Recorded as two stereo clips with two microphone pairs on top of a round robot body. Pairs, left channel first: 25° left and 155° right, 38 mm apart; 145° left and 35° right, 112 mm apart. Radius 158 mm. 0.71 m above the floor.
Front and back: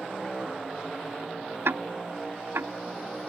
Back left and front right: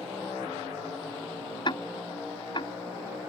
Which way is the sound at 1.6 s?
170° right.